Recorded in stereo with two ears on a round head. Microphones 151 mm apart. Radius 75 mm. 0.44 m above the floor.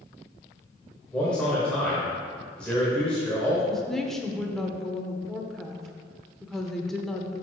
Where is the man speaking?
5° left (ahead or behind), 1.6 m.